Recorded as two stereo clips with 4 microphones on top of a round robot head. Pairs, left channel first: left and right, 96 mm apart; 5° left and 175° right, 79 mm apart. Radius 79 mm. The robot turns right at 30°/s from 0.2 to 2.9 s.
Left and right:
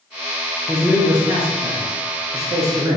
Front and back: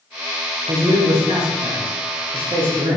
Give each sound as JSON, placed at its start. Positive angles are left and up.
{"t": 0.7, "sound": "a man speaking", "azimuth_deg": 180, "distance_m": 0.8}